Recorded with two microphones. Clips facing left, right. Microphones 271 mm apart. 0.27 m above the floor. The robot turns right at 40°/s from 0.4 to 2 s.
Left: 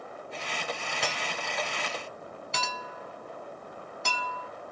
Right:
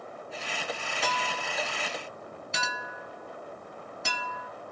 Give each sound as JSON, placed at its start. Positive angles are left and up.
{"t": 1.0, "sound": "a clink", "side_deg": 25, "distance_m": 1.6}